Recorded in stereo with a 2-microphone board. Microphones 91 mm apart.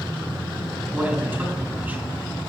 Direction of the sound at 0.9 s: 20° right (ahead or behind).